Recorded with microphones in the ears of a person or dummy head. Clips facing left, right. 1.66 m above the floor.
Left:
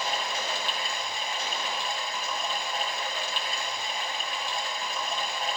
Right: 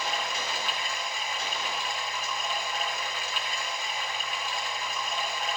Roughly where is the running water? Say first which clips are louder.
Left 1 dB; left.